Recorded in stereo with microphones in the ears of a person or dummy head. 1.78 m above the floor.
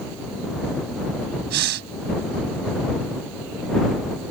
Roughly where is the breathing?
Right.